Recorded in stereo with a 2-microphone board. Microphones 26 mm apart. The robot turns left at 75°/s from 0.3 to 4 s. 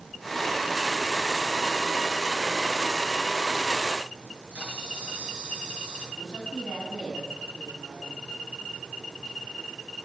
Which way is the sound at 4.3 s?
55° right (ahead or behind).